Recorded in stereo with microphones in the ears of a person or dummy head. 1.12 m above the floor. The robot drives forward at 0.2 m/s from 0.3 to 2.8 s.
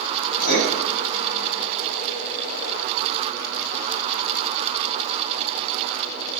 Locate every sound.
0.4 s writing: 60° left (ahead or behind), 0.8 m